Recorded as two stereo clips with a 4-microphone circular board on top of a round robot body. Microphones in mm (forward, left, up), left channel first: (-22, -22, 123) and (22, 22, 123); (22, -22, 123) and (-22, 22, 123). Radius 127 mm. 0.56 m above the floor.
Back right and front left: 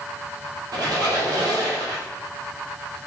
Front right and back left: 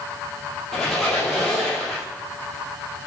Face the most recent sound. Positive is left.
turn(degrees=40)